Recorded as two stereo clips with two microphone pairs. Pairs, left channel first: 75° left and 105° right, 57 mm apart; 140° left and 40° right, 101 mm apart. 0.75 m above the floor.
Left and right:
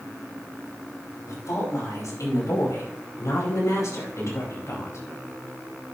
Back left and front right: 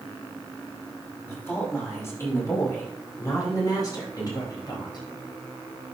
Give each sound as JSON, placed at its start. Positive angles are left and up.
{"t": 1.3, "sound": "a woman speaking", "azimuth_deg": 75, "distance_m": 5.0}